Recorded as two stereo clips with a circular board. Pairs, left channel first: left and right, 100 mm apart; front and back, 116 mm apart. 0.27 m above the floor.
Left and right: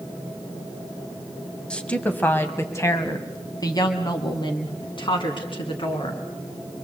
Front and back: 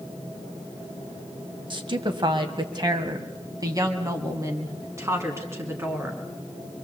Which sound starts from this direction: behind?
A woman speaking, at 1.7 s.